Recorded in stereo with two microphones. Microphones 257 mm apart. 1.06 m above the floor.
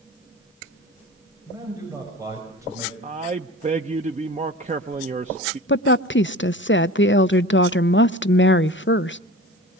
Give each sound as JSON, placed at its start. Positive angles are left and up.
{"t": 1.5, "sound": "a man speaking", "side_deg": -15, "distance_m": 6.0}
{"t": 3.0, "sound": "a man speaking", "side_deg": -30, "distance_m": 0.7}
{"t": 5.7, "sound": "a woman speaking", "side_deg": 50, "distance_m": 0.5}